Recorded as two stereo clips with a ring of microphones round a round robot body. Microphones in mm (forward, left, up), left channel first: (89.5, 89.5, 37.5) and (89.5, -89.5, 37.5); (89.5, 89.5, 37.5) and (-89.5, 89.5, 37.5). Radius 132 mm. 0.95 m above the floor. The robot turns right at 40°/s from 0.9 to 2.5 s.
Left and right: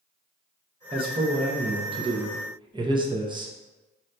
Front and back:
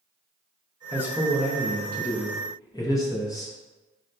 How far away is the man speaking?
About 0.6 m.